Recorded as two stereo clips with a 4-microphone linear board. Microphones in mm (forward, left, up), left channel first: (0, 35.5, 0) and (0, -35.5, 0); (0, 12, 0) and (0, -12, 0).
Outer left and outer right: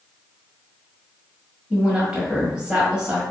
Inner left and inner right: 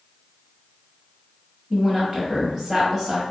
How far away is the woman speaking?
About 1.6 m.